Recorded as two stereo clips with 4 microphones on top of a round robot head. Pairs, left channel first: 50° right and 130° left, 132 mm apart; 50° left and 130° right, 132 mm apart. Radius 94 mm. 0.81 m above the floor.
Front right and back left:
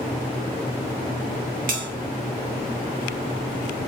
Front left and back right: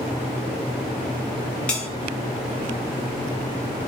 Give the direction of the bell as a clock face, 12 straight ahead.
8 o'clock.